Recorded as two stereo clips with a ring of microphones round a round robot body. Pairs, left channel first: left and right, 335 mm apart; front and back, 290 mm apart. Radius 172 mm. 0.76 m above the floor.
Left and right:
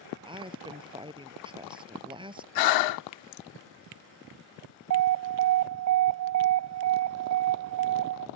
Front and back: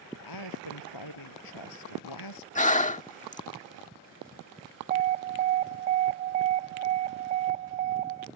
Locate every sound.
0.2 s a woman speaking: 15° right
2.5 s breathing: 65° left
4.9 s an alarm: 120° right